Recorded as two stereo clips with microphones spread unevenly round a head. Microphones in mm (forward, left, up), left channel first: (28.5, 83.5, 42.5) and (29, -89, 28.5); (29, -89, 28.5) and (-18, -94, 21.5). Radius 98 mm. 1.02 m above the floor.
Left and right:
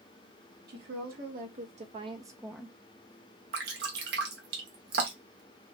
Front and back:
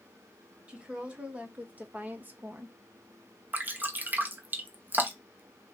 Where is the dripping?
125° right, 0.8 m.